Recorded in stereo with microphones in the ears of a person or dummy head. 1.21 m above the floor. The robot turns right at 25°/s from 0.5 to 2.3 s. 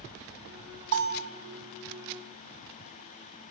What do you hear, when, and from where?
0.9 s a bell: 60° right (ahead or behind), 1.1 m